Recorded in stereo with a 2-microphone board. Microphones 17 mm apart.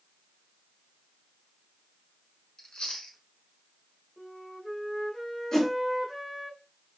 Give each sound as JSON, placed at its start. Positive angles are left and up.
{"t": 2.6, "sound": "chewing", "side_deg": 70, "distance_m": 0.9}
{"t": 4.2, "sound": "a flute", "side_deg": 25, "distance_m": 1.4}
{"t": 5.5, "sound": "a whoosh", "side_deg": 50, "distance_m": 1.8}